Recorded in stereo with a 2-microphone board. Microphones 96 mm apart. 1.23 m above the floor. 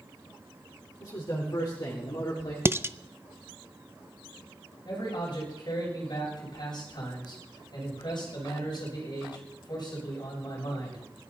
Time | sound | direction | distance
1.0 | a man speaking | 40° left (ahead or behind) | 5 m
2.6 | dishes clattering | 25° right (ahead or behind) | 0.5 m
4.8 | a man speaking | 50° left (ahead or behind) | 8 m